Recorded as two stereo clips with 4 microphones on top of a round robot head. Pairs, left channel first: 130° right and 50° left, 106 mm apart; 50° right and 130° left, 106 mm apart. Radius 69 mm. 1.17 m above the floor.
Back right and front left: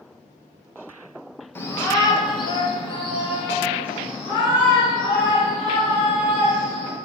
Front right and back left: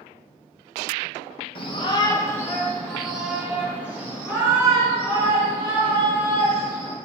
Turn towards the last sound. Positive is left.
turn(degrees=180)